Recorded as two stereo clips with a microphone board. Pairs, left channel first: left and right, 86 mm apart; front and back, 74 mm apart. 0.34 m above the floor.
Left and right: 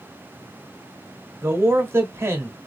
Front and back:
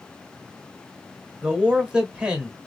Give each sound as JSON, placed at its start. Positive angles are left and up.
{"t": 1.4, "sound": "a man speaking", "azimuth_deg": -115, "distance_m": 1.0}